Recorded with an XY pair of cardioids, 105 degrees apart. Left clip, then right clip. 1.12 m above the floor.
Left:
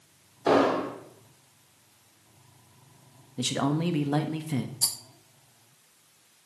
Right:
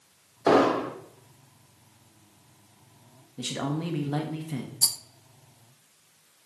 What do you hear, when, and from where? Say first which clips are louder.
0.5 s an explosion: right 2 dB; 25° right, 1.6 m
3.4 s a man speaking: left 4 dB; 30° left, 1.1 m
4.8 s a rattle: right 4 dB; 25° right, 0.5 m